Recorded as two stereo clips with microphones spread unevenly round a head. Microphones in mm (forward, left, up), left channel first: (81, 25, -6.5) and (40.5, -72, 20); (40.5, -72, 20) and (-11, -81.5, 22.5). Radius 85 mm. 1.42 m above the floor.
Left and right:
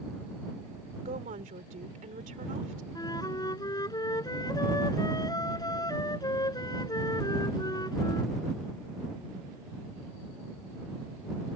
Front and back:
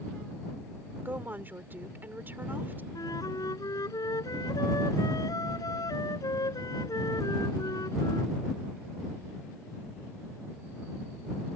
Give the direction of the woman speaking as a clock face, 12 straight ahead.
4 o'clock.